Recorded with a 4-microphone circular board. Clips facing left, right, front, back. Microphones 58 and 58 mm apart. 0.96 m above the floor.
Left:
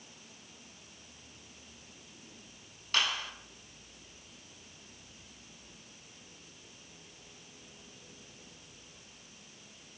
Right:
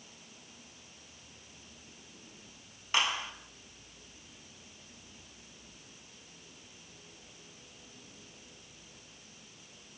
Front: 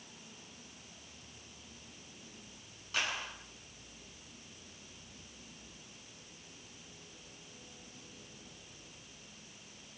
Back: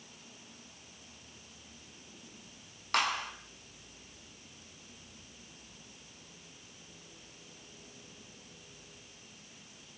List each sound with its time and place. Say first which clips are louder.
2.9 s a clap: right 1 dB, back 6 dB; 160° right, 6.5 m